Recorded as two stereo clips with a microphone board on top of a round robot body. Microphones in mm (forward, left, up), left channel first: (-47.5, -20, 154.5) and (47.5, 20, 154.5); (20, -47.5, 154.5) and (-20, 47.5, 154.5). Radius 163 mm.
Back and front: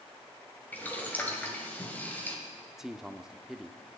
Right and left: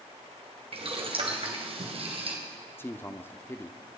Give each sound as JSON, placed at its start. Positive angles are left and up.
{"t": 0.7, "sound": "boiling", "azimuth_deg": 130, "distance_m": 2.5}
{"t": 2.8, "sound": "a man speaking", "azimuth_deg": -55, "distance_m": 1.0}